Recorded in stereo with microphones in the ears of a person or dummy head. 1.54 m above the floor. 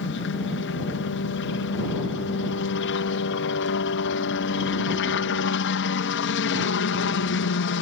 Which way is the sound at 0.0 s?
60° left (ahead or behind).